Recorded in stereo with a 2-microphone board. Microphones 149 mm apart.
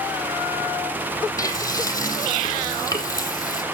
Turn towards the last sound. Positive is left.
turn(degrees=25)  # may be behind; listen again after turning